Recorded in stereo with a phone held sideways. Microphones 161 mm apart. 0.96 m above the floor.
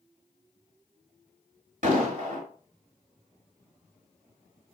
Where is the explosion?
60° right (ahead or behind), 1.5 m.